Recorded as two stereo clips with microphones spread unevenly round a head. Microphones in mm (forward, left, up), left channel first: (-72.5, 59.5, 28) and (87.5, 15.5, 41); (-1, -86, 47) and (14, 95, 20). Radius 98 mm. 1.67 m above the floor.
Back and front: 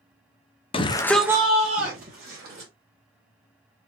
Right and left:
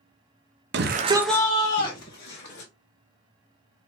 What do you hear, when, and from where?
0.7 s a shout: 110° left, 0.7 m; by 2.7 s 60° right, 1.8 m